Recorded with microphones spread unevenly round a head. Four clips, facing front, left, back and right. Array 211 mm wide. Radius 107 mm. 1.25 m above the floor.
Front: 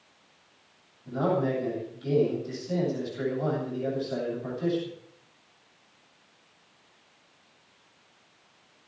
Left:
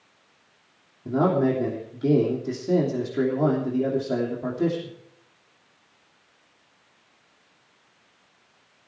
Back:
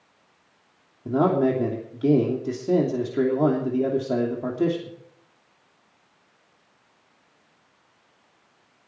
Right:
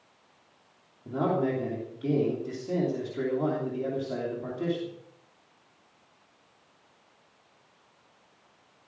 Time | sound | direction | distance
1.1 | a man speaking | 155° left | 3 m